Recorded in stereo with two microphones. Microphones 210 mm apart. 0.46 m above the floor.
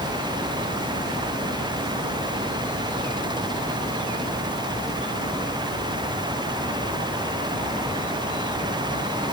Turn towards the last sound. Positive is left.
No sound to turn to.